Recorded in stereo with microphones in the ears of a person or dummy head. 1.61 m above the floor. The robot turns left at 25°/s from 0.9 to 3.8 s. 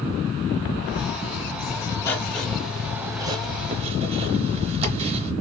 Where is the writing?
20° left, 0.7 m; by 5.3 s 30° right, 0.7 m.